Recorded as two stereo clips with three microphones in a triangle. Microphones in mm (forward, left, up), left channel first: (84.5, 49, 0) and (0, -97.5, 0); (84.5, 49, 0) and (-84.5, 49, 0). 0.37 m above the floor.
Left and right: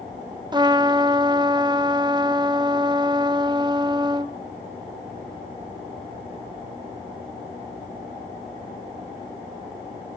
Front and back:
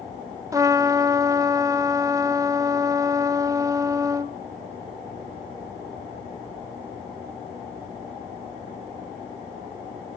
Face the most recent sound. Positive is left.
turn(degrees=-140)